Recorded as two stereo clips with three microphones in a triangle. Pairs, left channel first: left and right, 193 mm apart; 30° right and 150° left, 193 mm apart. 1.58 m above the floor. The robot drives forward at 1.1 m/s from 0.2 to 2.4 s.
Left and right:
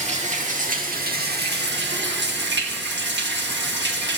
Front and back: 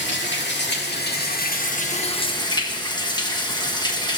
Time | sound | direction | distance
0.0 | running water | 40° right | 3 m